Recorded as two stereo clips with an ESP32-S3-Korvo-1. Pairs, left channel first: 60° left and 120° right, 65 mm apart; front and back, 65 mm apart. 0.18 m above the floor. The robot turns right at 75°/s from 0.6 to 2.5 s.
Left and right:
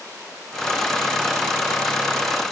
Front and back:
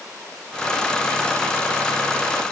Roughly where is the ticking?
No ticking in this recording.